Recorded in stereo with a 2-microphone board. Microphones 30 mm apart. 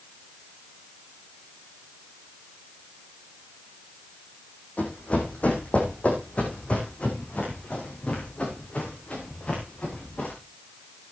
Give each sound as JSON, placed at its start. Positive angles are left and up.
{"t": 4.8, "sound": "running footsteps", "side_deg": 50, "distance_m": 5.0}